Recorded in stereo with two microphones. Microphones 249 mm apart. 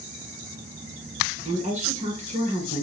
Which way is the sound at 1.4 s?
25° right (ahead or behind).